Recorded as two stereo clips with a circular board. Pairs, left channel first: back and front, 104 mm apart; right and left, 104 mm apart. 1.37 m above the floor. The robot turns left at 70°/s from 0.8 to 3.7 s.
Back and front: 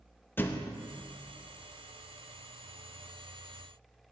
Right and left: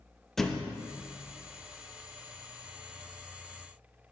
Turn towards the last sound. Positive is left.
turn(degrees=-15)